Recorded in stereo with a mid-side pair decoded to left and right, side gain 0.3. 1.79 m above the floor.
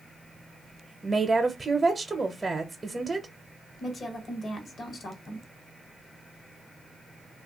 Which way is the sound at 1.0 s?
30° right.